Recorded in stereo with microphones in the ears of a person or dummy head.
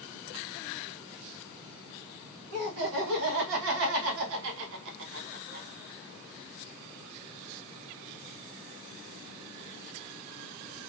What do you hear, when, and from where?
2.5 s laughter: 60° right (ahead or behind), 1.7 m; by 5.7 s 45° right (ahead or behind), 1.1 m